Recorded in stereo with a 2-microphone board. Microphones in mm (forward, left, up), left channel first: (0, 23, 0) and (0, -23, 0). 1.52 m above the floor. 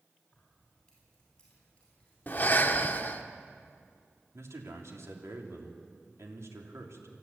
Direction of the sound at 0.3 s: 15° left (ahead or behind).